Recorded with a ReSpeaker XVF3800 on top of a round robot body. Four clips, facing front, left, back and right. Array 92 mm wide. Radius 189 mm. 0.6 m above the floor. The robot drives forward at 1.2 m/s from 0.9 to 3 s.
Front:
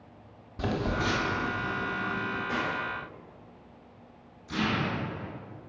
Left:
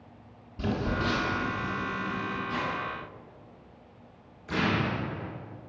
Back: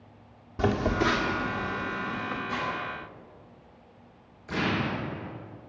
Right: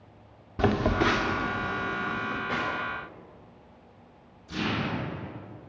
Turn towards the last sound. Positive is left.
turn(degrees=125)